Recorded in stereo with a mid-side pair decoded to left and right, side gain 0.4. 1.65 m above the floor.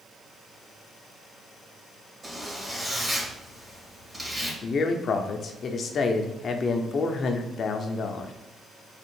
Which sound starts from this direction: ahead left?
A man speaking, at 4.6 s.